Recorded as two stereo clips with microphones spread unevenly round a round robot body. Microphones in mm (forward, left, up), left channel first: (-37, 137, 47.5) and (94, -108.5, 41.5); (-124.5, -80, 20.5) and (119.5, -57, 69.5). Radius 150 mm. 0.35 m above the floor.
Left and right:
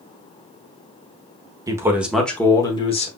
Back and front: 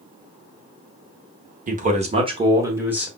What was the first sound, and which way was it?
A man speaking, 15° right.